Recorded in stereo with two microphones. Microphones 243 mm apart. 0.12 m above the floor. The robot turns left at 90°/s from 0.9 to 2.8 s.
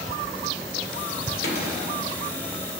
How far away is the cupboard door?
About 2.5 m.